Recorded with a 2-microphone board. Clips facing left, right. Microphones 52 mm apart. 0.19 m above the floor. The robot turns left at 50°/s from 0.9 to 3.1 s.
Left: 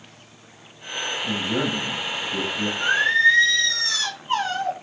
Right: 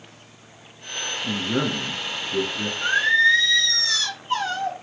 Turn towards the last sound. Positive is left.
turn(degrees=25)  # may be behind; listen again after turning